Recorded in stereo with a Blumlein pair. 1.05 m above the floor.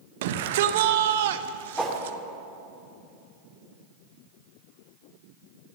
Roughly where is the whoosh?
Ahead.